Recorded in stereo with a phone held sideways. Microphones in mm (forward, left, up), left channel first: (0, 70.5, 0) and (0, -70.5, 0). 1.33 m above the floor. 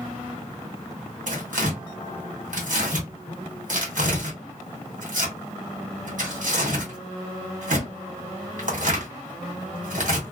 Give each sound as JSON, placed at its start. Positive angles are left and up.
{"t": 1.3, "sound": "tearing paper", "side_deg": -65, "distance_m": 1.5}